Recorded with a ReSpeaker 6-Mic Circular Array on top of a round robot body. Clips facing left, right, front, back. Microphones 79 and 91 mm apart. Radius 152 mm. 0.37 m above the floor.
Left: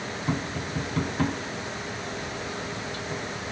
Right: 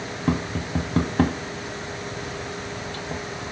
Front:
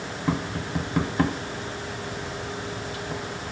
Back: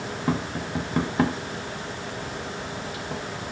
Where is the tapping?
100° right, 1.5 m.